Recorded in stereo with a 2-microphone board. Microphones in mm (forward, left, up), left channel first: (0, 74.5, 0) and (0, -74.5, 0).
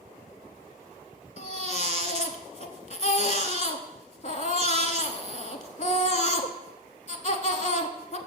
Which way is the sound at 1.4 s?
55° left (ahead or behind).